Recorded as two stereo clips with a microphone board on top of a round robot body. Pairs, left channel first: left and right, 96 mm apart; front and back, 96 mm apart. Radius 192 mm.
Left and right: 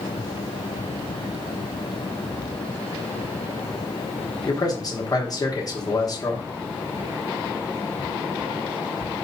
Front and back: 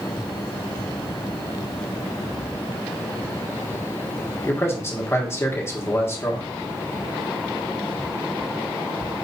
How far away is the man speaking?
About 1.5 m.